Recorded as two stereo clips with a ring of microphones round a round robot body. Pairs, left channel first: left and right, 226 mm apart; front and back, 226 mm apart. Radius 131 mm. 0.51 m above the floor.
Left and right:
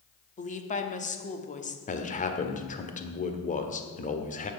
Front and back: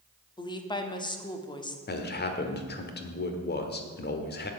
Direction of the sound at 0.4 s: 60° left.